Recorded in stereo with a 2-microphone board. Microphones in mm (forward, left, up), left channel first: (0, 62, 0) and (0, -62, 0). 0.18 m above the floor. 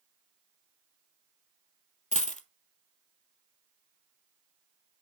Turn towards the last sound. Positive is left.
turn(degrees=85)